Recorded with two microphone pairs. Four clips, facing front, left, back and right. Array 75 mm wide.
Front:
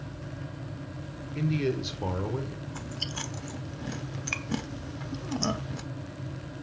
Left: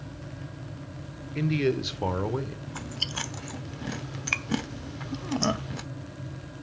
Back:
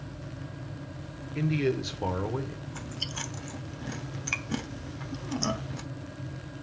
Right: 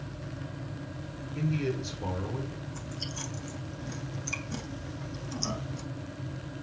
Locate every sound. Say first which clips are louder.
1.4 s a man speaking: left 5 dB, back 1 dB; 105° left, 1.3 m
2.7 s chewing: left 3 dB, front 1 dB; 85° left, 1.0 m